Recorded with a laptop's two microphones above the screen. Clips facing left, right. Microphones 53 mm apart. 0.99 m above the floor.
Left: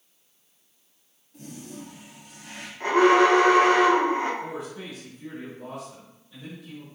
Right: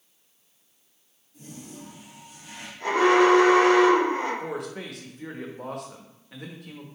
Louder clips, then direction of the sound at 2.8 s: Left 1 dB; 35° left (ahead or behind).